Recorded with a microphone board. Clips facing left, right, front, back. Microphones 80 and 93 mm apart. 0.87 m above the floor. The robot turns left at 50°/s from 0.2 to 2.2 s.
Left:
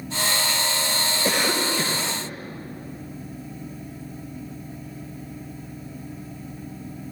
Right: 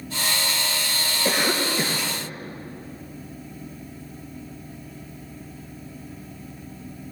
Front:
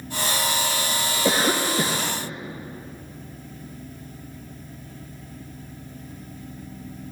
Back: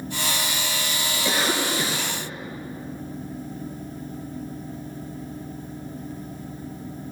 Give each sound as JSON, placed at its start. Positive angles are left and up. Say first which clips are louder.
{"t": 1.2, "sound": "a cough", "louder": "right 1 dB, front 3 dB", "azimuth_deg": 5, "distance_m": 1.1}